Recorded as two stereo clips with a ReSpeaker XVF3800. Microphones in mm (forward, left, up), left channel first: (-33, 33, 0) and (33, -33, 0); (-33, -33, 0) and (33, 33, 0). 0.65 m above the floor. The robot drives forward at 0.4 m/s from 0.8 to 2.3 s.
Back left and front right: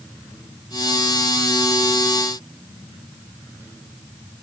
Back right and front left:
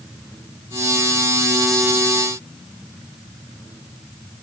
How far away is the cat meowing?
No cat meowing in this recording.